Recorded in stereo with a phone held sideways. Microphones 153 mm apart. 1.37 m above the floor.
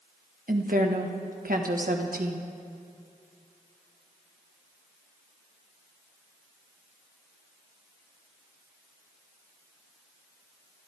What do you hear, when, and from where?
0.5 s a woman speaking: 75° right (ahead or behind), 1.5 m